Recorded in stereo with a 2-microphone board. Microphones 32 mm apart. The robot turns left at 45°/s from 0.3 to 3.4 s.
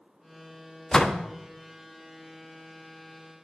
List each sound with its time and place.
0.9 s a door slam: 20° left (ahead or behind), 0.9 m; by 1.2 s 35° left (ahead or behind), 0.9 m